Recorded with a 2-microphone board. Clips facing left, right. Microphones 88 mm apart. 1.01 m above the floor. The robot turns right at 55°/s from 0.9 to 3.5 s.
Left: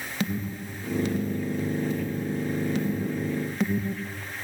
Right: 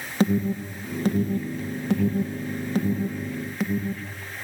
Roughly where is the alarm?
Right.